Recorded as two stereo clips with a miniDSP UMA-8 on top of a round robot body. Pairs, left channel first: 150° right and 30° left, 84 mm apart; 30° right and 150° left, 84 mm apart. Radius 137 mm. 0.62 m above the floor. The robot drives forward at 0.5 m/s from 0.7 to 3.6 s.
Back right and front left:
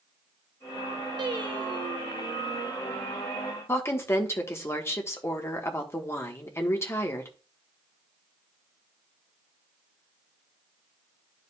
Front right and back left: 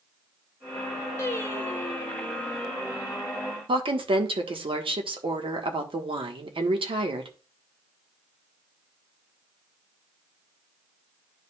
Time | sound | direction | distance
1.2 | singing | 20° left | 1.4 m
3.7 | a woman speaking | 150° left | 1.4 m